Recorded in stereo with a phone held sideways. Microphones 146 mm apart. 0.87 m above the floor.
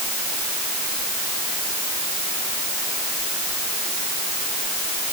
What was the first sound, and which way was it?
Only background noise.